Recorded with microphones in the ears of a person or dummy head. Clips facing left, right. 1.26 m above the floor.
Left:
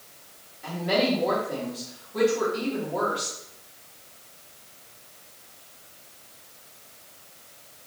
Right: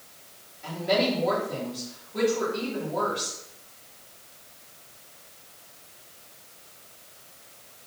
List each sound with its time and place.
0.6 s a woman speaking: centre (ahead or behind), 2.5 m